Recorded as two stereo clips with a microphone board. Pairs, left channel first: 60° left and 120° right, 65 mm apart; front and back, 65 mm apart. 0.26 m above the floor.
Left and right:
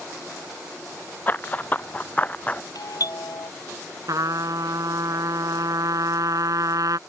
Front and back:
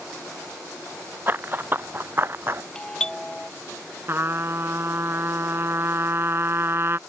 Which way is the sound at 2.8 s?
80° left.